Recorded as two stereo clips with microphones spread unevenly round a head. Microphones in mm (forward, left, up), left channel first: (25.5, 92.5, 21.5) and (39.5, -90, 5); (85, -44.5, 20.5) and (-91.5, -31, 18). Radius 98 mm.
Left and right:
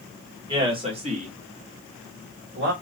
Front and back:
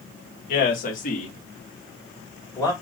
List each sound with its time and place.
0.5 s a man speaking: 25° right, 1.7 m; by 2.7 s 70° right, 2.0 m